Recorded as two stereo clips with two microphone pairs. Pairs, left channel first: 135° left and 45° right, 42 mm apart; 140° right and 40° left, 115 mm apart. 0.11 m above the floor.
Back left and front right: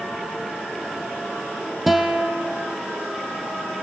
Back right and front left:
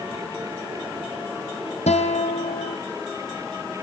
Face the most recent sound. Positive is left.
turn(degrees=-130)